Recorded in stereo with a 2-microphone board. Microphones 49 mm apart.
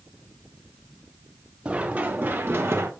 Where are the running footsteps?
25° right (ahead or behind), 2.5 m; by 2.9 s 65° right (ahead or behind), 2.5 m.